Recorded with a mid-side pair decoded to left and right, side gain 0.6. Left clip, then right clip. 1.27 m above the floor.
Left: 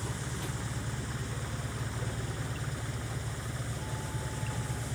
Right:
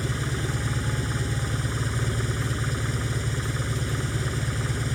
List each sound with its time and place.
0.0 s an engine running: 50° right